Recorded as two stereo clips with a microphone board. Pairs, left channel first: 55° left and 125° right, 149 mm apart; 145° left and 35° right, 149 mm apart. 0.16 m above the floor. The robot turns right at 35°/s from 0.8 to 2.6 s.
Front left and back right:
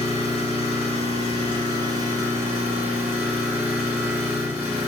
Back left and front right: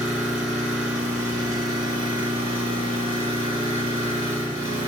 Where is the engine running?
115° right, 1.8 m; by 4.9 s 55° right, 1.8 m.